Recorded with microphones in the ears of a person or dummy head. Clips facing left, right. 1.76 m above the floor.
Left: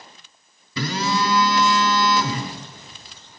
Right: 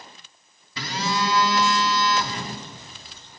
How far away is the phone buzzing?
About 7 m.